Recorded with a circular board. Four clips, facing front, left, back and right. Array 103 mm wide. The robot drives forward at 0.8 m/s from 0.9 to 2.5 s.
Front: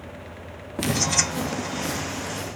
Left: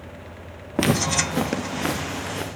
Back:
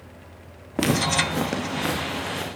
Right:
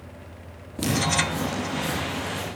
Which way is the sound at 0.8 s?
115° left.